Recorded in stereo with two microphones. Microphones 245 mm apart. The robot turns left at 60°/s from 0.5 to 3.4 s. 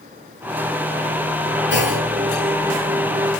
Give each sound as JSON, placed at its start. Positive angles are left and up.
{"t": 1.7, "sound": "a clunk", "side_deg": 50, "distance_m": 9.0}